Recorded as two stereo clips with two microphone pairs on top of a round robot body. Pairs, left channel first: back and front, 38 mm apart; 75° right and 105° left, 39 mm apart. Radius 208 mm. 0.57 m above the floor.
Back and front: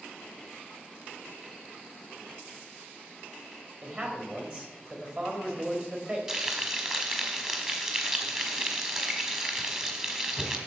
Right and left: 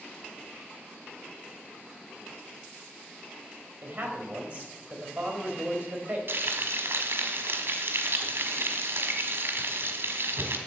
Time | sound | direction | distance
3.8 | a man speaking | 45° left | 3.5 m
6.3 | frying | 70° left | 1.5 m